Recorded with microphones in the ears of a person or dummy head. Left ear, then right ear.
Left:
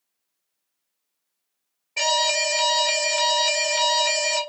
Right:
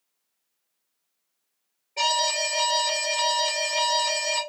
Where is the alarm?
65° left (ahead or behind), 1.3 m.